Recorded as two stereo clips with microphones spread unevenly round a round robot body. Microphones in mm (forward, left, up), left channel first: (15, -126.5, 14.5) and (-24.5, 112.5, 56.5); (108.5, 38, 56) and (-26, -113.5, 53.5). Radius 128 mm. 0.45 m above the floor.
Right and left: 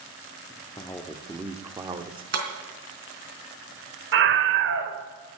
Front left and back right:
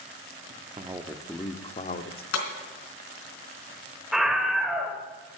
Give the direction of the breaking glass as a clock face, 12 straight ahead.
10 o'clock.